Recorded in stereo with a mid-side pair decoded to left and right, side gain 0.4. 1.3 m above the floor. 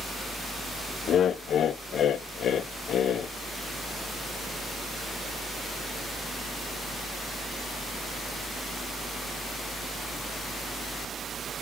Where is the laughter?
65° left, 0.6 m.